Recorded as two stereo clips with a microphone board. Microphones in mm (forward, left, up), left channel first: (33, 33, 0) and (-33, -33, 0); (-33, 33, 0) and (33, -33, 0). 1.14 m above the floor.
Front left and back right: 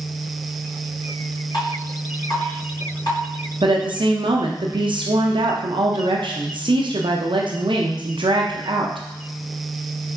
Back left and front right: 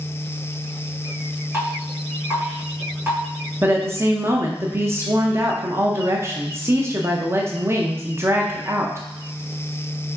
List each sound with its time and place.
1.5 s dripping: 15° left, 2.5 m
3.6 s a woman speaking: 105° right, 0.5 m